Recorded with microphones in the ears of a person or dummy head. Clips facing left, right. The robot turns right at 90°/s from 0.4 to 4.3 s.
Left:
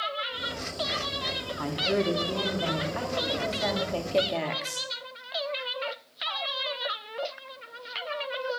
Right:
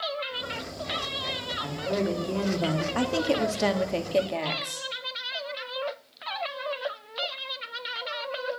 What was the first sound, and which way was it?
A woman speaking, 135° left.